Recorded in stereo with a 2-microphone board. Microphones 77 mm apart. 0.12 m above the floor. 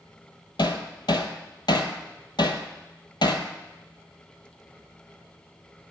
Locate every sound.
0.6 s hammering: 70° left (ahead or behind), 0.7 m